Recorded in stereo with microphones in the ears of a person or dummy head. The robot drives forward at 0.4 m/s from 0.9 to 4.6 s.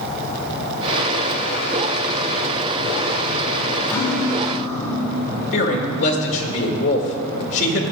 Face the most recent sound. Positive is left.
turn(degrees=60)  # may be behind; listen again after turning